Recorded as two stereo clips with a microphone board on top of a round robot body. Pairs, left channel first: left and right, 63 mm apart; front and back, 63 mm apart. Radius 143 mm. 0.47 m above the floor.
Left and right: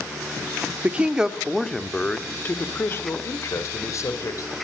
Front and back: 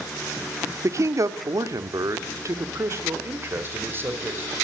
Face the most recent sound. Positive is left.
turn(degrees=120)